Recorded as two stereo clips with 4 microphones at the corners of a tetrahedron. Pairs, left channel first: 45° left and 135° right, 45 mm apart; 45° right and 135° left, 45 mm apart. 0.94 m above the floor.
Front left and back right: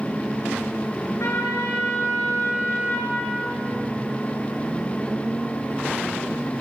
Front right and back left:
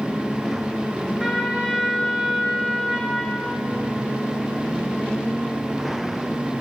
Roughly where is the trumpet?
Ahead left.